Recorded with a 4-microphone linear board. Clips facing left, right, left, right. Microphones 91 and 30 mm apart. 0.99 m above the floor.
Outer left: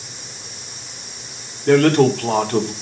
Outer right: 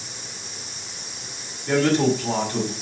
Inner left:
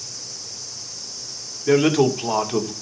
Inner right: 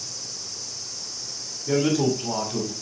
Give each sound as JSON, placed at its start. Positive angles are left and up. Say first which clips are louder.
{"t": 1.7, "sound": "a man speaking", "louder": "outer left 6 dB, inner left 5 dB", "side_deg": 65, "distance_m": 2.5}